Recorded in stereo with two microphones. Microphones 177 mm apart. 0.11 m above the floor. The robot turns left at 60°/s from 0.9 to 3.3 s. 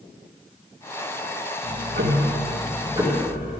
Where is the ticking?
75° right, 2.5 m; by 3.6 s 175° right, 2.5 m.